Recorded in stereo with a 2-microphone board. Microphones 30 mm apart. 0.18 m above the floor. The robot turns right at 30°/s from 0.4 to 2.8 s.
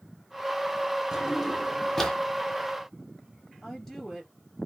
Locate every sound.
1.1 s a drawer: 20° right, 2 m; by 2.2 s 10° left, 2 m
3.6 s a woman speaking: 5° left (ahead or behind), 2.5 m